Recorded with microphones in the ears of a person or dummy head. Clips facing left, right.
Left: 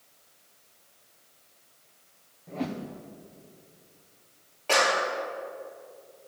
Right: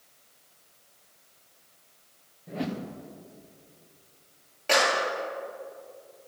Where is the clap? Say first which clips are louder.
Even; 20° right (ahead or behind), 2.5 m.